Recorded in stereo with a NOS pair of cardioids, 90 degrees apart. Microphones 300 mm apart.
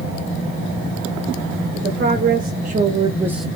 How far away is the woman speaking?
About 1.4 m.